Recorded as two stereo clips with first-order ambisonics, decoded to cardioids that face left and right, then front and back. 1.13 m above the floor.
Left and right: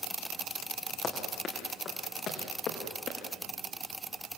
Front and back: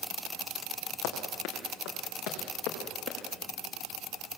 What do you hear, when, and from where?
1.0 s running footsteps: 25° left, 5 m; by 3.2 s 40° left, 6 m